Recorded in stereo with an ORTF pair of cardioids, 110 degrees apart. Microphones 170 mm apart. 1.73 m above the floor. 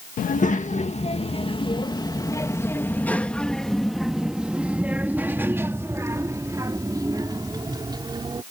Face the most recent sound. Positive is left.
turn(degrees=-25)